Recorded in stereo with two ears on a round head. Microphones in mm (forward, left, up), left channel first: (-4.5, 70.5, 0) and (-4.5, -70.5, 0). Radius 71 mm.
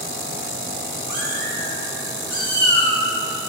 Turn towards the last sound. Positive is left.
turn(degrees=10)  # may be behind; listen again after turning